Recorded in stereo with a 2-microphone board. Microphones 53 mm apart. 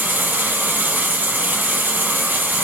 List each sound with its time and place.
0.0 s running water: 30° right (ahead or behind), 2.5 m